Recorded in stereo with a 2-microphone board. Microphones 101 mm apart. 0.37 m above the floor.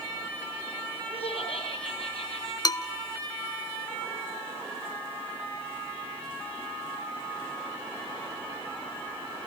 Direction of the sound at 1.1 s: 70° left (ahead or behind).